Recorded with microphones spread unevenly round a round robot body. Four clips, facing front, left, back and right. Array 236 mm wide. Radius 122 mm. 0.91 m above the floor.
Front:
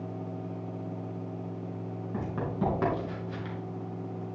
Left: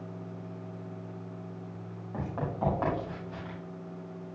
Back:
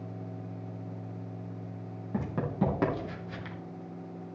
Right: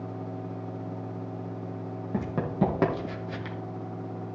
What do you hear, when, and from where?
2.1 s running footsteps: 125° right, 3 m; by 3.6 s 110° right, 2 m